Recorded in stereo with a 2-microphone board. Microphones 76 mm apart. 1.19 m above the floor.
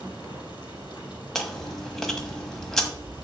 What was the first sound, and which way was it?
Running water, 80° left.